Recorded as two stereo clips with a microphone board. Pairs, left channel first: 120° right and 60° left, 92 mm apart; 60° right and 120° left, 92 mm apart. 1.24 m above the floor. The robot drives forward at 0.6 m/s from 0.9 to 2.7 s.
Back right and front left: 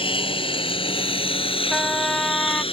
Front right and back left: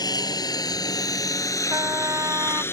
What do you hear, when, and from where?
0.0 s a lawn mower: 105° right; by 2.7 s 125° right
1.7 s a trumpet: 160° left; by 2.6 s 165° left